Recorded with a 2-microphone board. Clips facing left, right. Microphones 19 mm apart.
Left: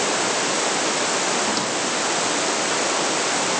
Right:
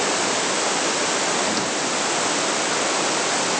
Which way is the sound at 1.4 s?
10° left (ahead or behind).